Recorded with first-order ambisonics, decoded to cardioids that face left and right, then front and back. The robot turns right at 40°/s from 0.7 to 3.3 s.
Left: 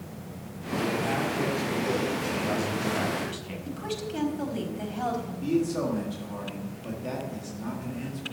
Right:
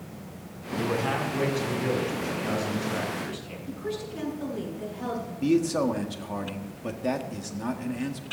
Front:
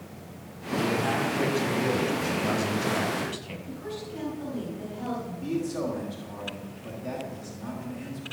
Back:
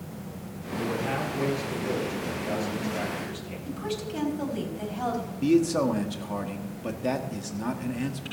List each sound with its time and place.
0.8 s a man speaking: 70° right, 6.5 m; by 3.5 s 30° left, 6.5 m
3.6 s a woman speaking: 130° left, 4.5 m
5.4 s a man speaking: 145° right, 1.7 m